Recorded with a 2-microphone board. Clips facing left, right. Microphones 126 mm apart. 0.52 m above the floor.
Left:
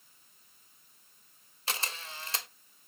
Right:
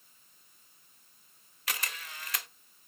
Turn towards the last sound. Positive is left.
turn(degrees=30)  # may be behind; listen again after turning